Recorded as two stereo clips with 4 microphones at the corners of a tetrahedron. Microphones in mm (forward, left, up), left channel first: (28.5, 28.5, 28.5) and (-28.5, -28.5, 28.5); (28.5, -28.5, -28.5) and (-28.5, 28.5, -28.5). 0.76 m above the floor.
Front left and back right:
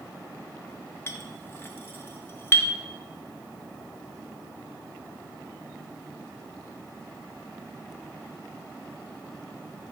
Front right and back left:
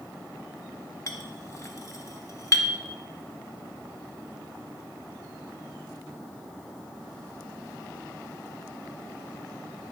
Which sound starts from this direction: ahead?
A clink, at 1.1 s.